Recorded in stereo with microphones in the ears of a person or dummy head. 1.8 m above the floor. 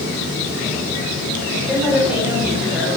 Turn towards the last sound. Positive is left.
turn(degrees=-5)  # may be behind; listen again after turning